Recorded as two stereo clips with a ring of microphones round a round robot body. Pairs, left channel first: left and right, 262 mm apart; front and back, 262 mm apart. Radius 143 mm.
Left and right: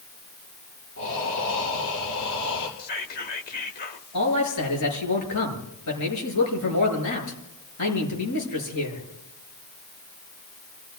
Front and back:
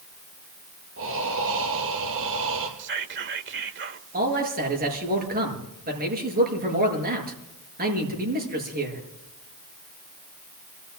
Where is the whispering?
145° left, 1.6 m.